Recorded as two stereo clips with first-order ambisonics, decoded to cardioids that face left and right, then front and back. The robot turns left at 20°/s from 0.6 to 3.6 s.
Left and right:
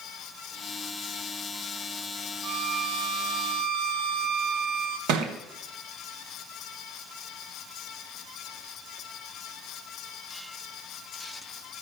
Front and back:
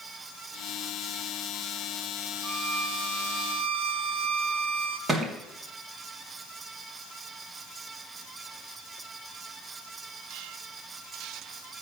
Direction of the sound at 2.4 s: 125° right.